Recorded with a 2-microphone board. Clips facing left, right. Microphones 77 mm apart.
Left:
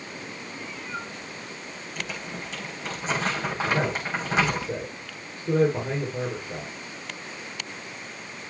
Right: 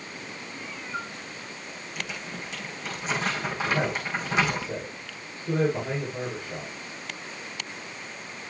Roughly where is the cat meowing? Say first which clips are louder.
Right 1 dB; centre.